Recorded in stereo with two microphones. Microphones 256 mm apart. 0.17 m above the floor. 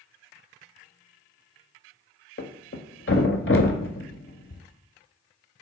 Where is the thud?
55° left (ahead or behind), 0.6 m.